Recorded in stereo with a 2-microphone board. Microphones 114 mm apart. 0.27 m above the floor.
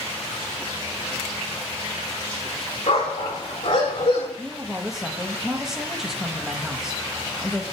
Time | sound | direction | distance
2.9 | a dog barking | 75° left (ahead or behind) | 7.5 m
4.4 | a woman speaking | 5° right (ahead or behind) | 1.5 m